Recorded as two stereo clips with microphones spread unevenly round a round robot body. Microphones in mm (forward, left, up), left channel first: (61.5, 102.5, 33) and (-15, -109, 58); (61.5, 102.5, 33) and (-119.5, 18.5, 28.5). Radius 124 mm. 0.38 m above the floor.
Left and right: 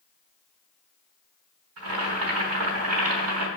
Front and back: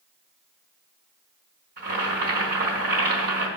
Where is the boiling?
110° right, 3 m.